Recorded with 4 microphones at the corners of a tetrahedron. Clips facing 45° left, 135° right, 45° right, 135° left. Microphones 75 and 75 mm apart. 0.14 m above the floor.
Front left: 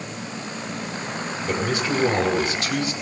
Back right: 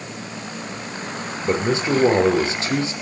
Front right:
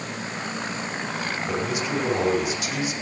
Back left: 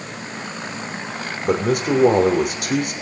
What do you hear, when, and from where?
1.4 s a man speaking: 165° left, 6 m